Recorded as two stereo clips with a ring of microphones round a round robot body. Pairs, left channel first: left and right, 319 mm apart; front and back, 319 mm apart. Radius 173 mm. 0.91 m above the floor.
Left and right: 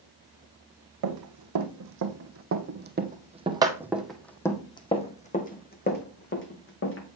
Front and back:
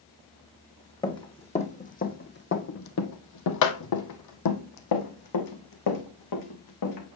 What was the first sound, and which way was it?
Running footsteps, 75° right.